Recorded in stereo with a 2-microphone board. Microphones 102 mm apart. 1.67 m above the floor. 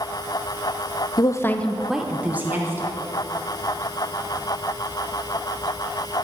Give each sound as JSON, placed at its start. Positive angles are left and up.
{"t": 1.2, "sound": "a woman speaking", "side_deg": 40, "distance_m": 0.8}